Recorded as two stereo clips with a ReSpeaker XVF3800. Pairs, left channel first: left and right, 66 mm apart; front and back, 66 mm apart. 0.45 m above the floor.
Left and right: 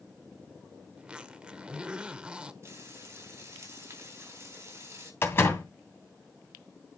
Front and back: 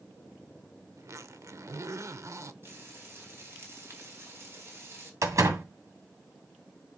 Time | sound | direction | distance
1.0 | a zipper | 160° right | 0.8 m
2.6 | frying | 130° right | 3.5 m
5.2 | a door slam | 145° left | 2.5 m